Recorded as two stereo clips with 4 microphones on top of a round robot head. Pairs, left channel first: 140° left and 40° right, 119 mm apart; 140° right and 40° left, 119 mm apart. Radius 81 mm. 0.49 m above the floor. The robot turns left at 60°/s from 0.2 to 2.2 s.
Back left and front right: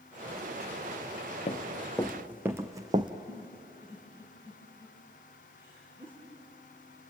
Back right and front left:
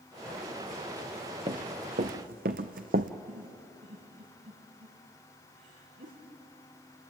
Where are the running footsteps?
95° left, 1.8 m; by 3.1 s 15° left, 1.1 m.